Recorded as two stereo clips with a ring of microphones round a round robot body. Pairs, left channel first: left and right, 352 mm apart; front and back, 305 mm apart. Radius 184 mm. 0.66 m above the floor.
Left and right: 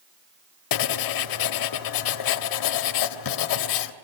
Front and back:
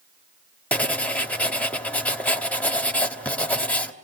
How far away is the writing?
About 1.4 m.